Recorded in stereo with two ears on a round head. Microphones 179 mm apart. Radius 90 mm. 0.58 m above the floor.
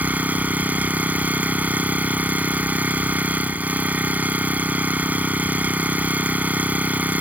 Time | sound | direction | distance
0.0 | an engine running | 10° right (ahead or behind) | ?